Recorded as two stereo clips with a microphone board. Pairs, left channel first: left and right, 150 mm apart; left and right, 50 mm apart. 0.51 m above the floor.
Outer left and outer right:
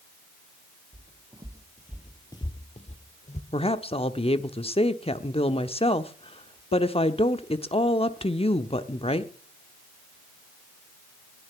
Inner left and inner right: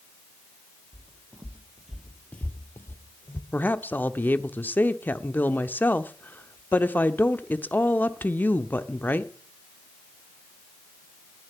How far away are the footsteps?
About 1.5 m.